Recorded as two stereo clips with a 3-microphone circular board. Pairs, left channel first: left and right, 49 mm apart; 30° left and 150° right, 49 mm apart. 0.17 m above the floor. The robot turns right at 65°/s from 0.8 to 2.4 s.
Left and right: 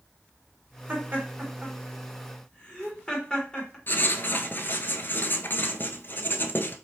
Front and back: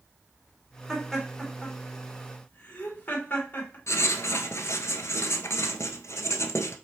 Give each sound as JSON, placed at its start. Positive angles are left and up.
{"t": 0.9, "sound": "laughter", "azimuth_deg": -70, "distance_m": 2.0}
{"t": 3.9, "sound": "writing", "azimuth_deg": 45, "distance_m": 0.6}